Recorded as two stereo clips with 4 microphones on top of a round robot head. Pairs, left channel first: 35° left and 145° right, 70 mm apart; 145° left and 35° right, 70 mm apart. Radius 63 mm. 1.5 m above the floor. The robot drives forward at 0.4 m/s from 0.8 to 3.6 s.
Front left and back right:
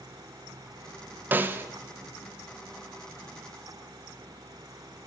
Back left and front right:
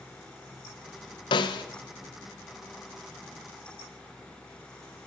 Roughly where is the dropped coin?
I don't hear a dropped coin.